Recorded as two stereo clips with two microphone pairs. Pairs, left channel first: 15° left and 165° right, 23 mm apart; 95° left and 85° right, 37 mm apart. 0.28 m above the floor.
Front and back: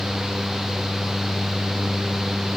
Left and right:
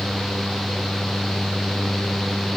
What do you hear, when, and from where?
Only background noise.